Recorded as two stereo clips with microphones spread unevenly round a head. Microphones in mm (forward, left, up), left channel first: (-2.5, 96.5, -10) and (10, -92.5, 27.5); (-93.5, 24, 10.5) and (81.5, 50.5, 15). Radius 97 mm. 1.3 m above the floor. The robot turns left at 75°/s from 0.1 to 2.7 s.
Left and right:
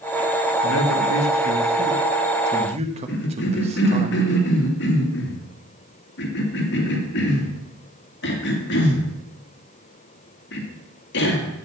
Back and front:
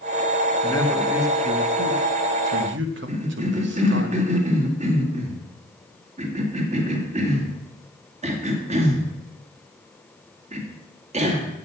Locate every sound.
0.6 s a man speaking: 125° left, 1.4 m; by 4.1 s 30° right, 1.4 m
3.1 s a cough: 60° left, 2 m